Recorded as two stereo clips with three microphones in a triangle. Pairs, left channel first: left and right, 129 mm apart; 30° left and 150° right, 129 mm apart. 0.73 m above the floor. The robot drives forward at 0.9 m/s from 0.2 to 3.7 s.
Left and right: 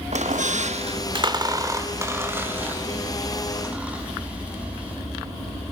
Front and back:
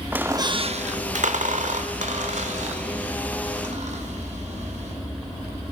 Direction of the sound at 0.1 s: 75° right.